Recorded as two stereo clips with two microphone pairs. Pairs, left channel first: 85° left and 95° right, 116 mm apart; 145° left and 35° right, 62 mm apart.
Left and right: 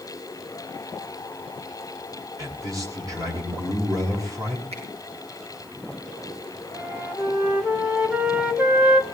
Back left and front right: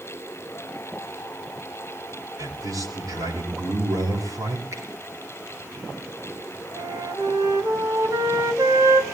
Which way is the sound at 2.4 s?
35° right.